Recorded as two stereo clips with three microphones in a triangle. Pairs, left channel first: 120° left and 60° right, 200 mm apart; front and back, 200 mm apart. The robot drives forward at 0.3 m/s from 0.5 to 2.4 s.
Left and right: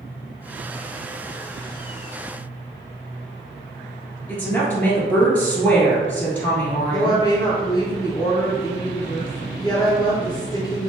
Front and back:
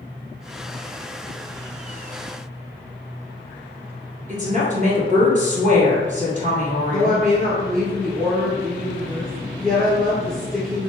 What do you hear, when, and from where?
4.3 s a woman speaking: 160° right, 1.9 m
6.9 s a woman speaking: 175° right, 1.7 m